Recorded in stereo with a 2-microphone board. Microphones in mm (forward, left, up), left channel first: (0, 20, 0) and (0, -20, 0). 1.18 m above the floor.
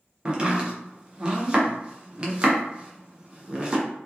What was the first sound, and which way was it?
Chopping, 25° right (ahead or behind).